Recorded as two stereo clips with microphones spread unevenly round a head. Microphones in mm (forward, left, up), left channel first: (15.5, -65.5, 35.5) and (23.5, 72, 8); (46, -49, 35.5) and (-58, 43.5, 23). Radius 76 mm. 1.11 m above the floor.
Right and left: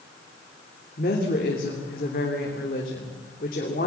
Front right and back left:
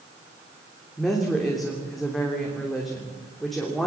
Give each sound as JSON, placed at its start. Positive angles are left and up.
{"t": 1.0, "sound": "a woman speaking", "azimuth_deg": -130, "distance_m": 3.0}